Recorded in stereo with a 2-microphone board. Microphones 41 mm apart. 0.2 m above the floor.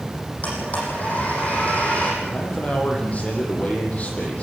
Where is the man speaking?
35° left (ahead or behind), 7 m.